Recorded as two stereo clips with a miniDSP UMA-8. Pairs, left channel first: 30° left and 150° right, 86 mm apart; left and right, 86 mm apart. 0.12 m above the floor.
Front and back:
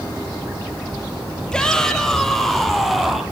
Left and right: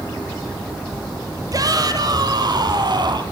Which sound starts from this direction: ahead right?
A shout, at 1.5 s.